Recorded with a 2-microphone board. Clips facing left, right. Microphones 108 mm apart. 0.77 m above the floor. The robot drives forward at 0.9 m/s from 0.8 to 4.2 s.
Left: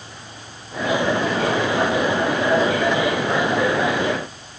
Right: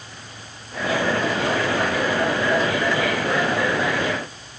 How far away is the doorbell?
No doorbell in this recording.